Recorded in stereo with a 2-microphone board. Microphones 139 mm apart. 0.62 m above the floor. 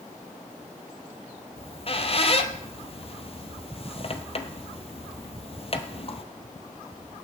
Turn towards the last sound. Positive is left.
turn(degrees=45)  # may be behind; listen again after turning